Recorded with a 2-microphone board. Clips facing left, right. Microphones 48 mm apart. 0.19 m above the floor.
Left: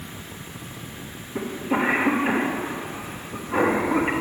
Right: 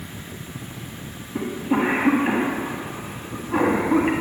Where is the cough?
Centre (ahead or behind), 1.7 m.